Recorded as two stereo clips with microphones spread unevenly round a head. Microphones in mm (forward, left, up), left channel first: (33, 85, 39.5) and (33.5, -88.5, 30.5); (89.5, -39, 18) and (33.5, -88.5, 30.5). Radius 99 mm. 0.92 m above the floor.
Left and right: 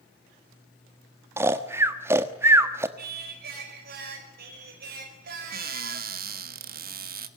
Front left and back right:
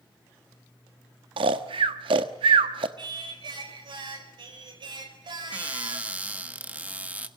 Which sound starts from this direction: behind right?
Singing, at 3.0 s.